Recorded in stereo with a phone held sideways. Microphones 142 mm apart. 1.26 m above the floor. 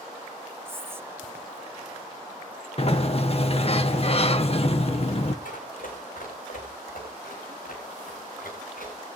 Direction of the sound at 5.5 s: 70° left (ahead or behind).